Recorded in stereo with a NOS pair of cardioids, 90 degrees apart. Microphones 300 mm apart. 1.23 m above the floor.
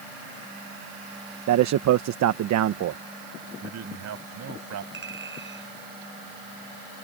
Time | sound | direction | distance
1.5 | a man speaking | 65° right | ?
3.6 | a man speaking | 60° right | ?
4.9 | a clink | 40° right | ?